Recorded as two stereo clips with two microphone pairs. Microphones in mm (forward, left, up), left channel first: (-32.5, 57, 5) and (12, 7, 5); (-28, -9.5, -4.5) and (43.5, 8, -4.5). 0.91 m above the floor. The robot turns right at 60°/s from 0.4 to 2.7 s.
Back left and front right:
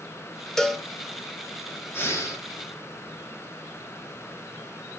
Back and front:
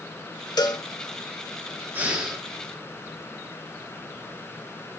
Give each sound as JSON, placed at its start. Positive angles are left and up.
{"t": 0.6, "sound": "a cowbell", "azimuth_deg": -150, "distance_m": 0.7}
{"t": 1.9, "sound": "breathing", "azimuth_deg": 75, "distance_m": 1.5}